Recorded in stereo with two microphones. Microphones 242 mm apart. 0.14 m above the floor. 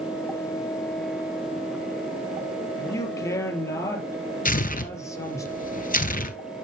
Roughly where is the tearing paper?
Left.